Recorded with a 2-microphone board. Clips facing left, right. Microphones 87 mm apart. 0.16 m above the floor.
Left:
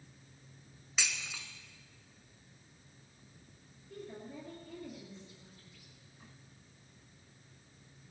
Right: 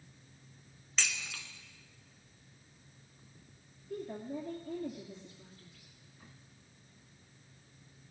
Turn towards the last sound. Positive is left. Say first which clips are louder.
# right 6 dB
turn(degrees=-45)  # may be behind; listen again after turning